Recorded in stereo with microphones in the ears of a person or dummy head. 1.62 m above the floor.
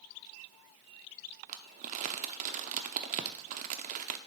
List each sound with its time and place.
1.5 s crumpling: 45° right (ahead or behind), 0.6 m